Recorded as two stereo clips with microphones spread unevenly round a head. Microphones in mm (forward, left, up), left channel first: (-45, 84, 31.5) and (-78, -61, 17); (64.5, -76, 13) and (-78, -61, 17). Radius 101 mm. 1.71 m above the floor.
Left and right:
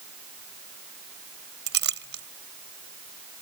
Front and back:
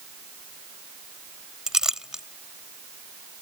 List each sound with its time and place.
1.7 s a clink: 100° right